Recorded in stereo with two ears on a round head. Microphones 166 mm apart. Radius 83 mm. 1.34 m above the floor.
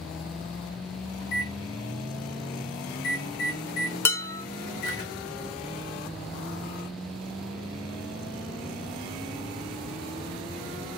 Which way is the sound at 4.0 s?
15° left (ahead or behind).